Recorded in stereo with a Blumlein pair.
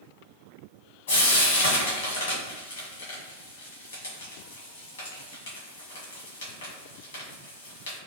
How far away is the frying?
About 1.6 m.